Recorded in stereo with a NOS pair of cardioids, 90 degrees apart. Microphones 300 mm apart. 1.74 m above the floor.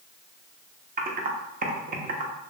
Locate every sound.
1.0 s typing on a keyboard: 30° right, 0.7 m